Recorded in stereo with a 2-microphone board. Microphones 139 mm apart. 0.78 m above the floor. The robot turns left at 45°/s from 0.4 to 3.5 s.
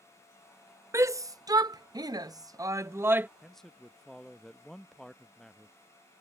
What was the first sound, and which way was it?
A shout, 20° right (ahead or behind).